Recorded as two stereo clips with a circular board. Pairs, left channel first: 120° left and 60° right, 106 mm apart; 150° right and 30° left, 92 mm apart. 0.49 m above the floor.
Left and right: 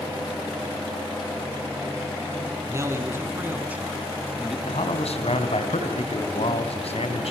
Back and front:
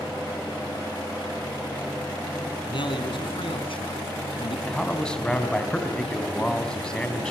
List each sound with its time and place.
2.7 s a man speaking: 120° right, 5 m; by 4.6 s 150° right, 4.5 m
4.7 s a man speaking: 130° left, 3.5 m